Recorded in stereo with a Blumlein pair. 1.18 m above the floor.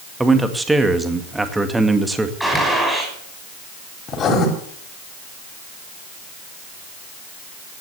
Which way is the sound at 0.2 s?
5° right.